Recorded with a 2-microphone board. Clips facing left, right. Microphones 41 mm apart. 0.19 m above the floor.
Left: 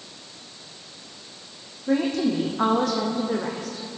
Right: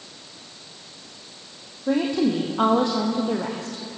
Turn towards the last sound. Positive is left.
turn(degrees=-65)  # may be behind; listen again after turning